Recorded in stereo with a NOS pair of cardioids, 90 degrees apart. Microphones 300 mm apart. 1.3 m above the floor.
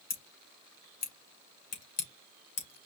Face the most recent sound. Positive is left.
turn(degrees=55)